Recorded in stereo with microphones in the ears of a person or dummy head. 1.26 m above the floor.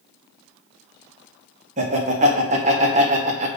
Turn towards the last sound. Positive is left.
turn(degrees=-25)  # may be behind; listen again after turning